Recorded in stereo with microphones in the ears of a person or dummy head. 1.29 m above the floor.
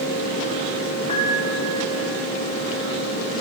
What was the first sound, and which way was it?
A piano, 25° left (ahead or behind).